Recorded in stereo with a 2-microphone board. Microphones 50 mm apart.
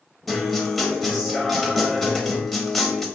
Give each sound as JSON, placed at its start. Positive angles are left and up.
{"t": 0.3, "sound": "a guitar", "side_deg": 5, "distance_m": 0.5}